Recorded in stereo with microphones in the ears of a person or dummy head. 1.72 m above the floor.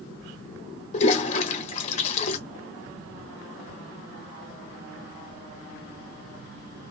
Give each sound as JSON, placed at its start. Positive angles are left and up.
{"t": 0.9, "sound": "a toilet flushing", "side_deg": 35, "distance_m": 0.7}